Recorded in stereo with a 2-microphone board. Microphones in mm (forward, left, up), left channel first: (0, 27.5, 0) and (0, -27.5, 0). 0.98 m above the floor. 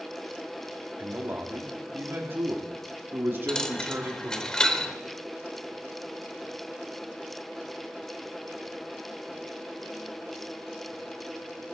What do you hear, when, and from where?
1.0 s a man speaking: 40° right (ahead or behind), 2.5 m
3.5 s a dropped coin: 10° left (ahead or behind), 0.9 m